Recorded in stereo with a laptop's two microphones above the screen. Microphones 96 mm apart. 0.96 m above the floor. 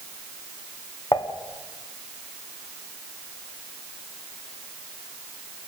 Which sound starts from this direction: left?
Dishes clattering, at 1.1 s.